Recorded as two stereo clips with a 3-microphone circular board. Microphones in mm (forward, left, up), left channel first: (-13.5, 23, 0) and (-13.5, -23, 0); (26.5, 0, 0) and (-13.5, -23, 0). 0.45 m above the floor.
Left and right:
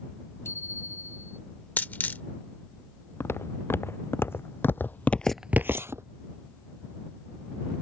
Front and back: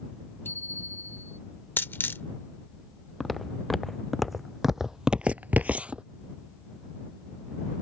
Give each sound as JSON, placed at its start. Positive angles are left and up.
{"t": 0.5, "sound": "a bicycle bell", "azimuth_deg": 65}
{"t": 1.8, "sound": "a dropped coin", "azimuth_deg": 50}
{"t": 3.2, "sound": "footsteps", "azimuth_deg": 115}